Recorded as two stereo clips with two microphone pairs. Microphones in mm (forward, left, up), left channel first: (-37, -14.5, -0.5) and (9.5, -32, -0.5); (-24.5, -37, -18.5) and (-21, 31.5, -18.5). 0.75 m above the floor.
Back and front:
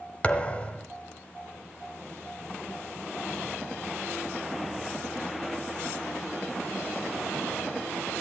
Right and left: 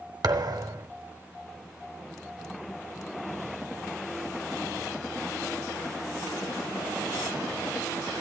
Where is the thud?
95° left, 1.4 m.